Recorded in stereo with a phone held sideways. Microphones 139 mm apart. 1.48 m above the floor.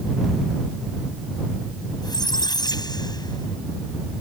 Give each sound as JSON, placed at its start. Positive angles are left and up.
{"t": 2.0, "sound": "a squeak", "side_deg": 30}